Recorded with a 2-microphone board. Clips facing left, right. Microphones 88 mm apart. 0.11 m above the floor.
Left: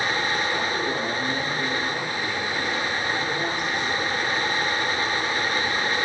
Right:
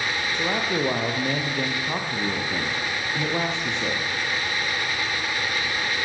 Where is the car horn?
I don't hear a car horn.